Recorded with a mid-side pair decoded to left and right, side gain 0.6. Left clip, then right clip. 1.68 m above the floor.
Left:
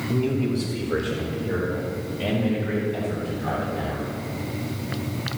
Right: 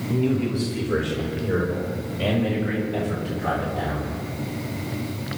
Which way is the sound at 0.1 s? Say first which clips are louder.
Right 2 dB; straight ahead.